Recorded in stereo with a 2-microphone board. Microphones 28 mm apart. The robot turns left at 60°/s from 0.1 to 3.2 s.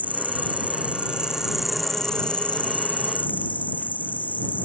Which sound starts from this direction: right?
An insect, at 0.0 s.